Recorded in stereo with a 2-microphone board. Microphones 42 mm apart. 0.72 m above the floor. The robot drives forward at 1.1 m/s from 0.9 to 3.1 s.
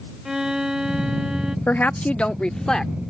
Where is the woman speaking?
45° left (ahead or behind); by 2.9 s 15° left (ahead or behind).